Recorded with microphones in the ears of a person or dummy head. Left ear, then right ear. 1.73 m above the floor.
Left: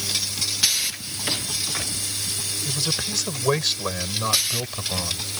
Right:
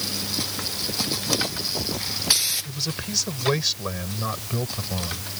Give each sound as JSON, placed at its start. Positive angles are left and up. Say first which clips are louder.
{"t": 2.6, "sound": "a man speaking", "louder": "left 5 dB", "side_deg": 15}